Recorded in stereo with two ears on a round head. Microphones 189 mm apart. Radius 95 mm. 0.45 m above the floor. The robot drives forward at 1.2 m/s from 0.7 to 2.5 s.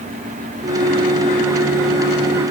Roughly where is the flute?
No flute in this recording.